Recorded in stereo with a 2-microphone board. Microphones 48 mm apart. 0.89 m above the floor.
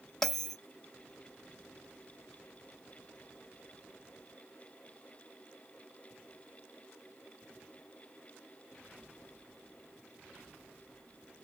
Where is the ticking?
No ticking in this recording.